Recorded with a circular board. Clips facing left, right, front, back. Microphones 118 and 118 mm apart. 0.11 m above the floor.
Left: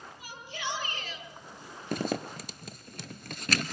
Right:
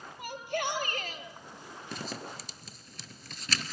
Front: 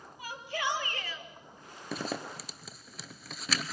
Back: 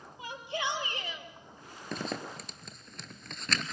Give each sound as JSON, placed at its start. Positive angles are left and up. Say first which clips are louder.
{"t": 0.2, "sound": "a shout", "louder": "right 7 dB, even", "azimuth_deg": -115, "distance_m": 3.5}
{"t": 1.9, "sound": "a zipper", "louder": "left 9 dB, even", "azimuth_deg": 85, "distance_m": 0.6}